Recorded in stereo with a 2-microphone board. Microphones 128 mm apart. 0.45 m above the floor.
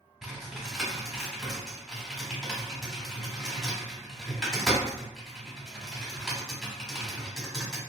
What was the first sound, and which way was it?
Typing on a keyboard, 5° right (ahead or behind).